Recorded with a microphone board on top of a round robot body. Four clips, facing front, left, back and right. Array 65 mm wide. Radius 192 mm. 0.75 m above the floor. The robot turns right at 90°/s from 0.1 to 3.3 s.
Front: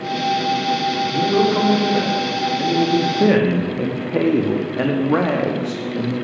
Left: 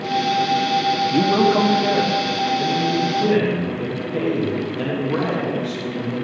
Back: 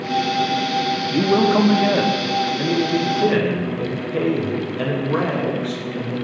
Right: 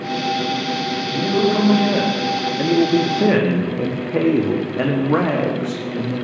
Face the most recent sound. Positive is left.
turn(degrees=-40)